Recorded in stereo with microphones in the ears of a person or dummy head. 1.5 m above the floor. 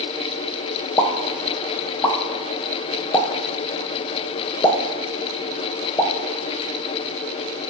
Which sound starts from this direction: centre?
A pop, at 1.0 s.